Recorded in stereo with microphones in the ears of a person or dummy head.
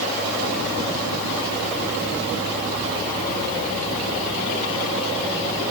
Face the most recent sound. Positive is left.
No sound to turn to.